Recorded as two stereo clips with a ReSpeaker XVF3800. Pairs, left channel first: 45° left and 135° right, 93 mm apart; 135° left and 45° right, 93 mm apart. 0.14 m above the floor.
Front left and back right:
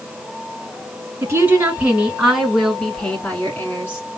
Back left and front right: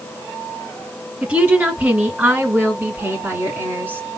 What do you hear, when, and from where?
1.2 s a woman speaking: 100° right, 1.6 m; by 4.0 s 10° left, 1.7 m